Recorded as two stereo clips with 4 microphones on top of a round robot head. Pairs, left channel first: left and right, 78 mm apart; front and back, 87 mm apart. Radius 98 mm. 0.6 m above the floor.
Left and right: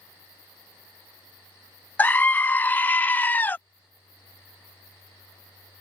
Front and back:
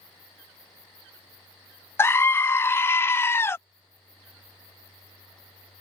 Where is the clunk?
No clunk in this recording.